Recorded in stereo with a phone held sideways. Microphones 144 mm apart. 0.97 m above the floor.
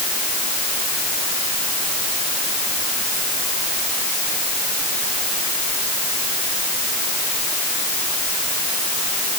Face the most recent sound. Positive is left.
No sound to turn to.